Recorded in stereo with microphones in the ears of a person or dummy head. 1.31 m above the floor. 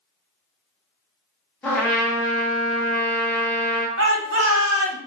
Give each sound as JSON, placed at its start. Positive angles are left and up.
{"t": 1.6, "sound": "a trumpet", "side_deg": 10, "distance_m": 1.0}
{"t": 4.0, "sound": "a shout", "side_deg": -75, "distance_m": 1.3}